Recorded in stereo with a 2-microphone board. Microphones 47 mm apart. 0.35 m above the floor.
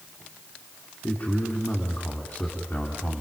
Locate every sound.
1.0 s a man speaking: 45° left (ahead or behind), 3 m